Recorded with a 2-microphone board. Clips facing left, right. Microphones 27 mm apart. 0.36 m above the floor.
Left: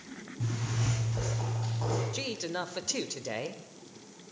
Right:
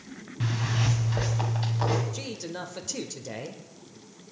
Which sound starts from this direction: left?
A man speaking, at 2.1 s.